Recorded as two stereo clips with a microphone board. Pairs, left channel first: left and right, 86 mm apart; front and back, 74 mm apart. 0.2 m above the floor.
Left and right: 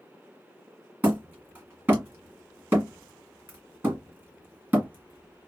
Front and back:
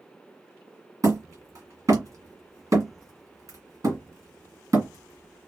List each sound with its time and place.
1.0 s hammering: 155° right, 1.6 m